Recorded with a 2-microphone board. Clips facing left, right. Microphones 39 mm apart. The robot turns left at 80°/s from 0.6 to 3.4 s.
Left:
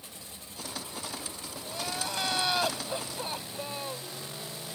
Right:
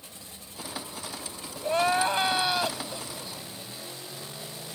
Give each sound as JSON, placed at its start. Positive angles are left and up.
{"t": 1.6, "sound": "crying", "azimuth_deg": -100}